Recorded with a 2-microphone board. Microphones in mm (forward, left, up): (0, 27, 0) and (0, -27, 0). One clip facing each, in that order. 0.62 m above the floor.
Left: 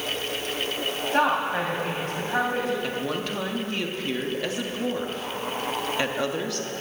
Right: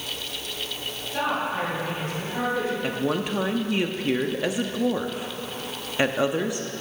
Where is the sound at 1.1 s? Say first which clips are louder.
Left 3 dB; 45° left (ahead or behind), 4 m.